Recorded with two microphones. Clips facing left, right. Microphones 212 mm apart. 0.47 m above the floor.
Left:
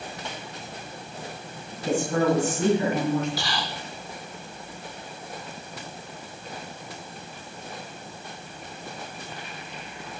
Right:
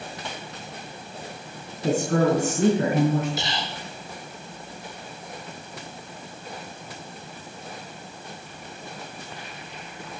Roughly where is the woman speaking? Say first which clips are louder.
Right 2 dB; right.